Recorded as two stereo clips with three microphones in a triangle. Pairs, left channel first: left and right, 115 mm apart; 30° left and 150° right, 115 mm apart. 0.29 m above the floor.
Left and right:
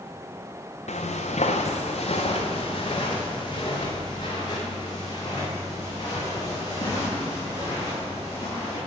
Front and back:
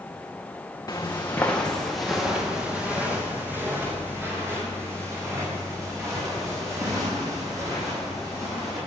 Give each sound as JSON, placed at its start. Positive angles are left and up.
{"t": 0.9, "sound": "footsteps", "azimuth_deg": 90, "distance_m": 1.7}